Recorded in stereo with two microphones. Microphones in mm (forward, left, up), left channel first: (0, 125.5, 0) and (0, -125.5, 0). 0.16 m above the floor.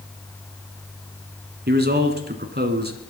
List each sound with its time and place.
1.7 s a man speaking: 40° right (ahead or behind), 1.7 m